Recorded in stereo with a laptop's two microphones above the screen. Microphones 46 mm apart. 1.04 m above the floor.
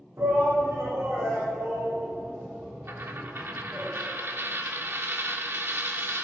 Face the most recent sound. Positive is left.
turn(degrees=-55)  # may be behind; listen again after turning